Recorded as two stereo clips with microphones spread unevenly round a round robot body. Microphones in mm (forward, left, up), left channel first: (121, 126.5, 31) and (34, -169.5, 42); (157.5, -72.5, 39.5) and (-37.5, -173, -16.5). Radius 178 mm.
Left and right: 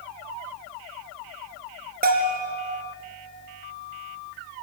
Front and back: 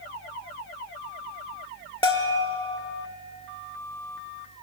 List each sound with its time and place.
2.0 s a bell: 45° right, 2.5 m